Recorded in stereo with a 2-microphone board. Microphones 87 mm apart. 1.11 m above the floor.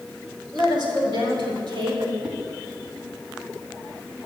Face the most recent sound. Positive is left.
turn(degrees=-15)  # may be behind; listen again after turning